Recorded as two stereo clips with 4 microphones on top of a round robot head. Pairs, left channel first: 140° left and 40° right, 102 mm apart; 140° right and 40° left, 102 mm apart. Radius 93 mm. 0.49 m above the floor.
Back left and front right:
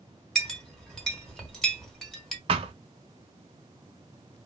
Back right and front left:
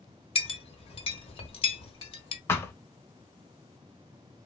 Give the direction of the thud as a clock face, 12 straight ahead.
2 o'clock.